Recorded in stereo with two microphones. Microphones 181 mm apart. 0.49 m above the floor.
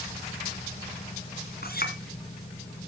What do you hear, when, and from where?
1.6 s a clink: 60° left (ahead or behind), 3 m